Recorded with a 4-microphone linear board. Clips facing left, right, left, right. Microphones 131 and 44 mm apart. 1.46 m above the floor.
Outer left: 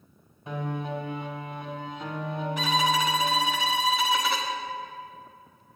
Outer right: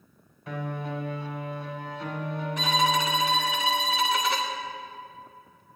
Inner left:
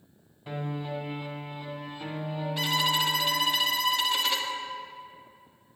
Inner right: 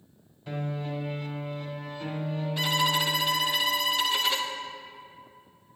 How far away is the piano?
About 2 m.